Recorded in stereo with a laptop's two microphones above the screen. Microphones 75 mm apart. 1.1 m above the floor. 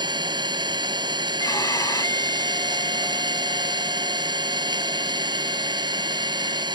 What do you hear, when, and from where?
0.0 s an engine running: 80° right
1.4 s a violin: 50° left (ahead or behind)